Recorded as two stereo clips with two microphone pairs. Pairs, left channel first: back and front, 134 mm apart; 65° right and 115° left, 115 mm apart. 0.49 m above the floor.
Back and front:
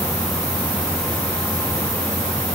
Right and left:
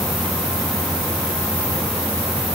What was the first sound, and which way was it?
Only background noise.